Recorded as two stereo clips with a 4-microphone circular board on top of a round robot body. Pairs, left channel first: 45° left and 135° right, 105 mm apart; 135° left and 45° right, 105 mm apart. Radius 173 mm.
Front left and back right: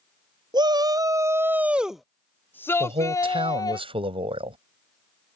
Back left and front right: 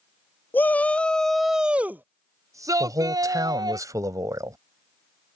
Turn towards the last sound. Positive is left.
turn(degrees=-105)